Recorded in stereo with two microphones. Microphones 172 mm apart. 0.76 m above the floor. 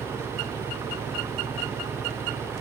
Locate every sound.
0.0 s an engine running: 15° right (ahead or behind)